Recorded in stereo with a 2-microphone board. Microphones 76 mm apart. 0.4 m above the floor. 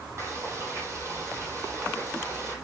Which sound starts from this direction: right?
Frying, at 0.2 s.